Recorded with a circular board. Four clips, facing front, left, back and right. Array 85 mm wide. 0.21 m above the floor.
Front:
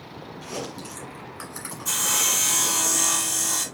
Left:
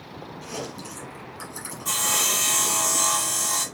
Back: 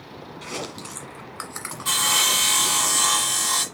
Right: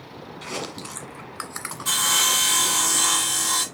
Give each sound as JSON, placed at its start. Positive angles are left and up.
{"t": 0.4, "sound": "chewing", "azimuth_deg": -130, "distance_m": 1.3}
{"t": 1.9, "sound": "sawing", "azimuth_deg": -160, "distance_m": 1.3}